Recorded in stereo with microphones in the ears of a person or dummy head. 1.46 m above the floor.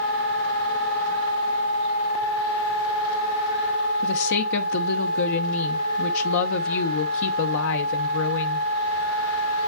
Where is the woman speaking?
65° left (ahead or behind), 0.8 m.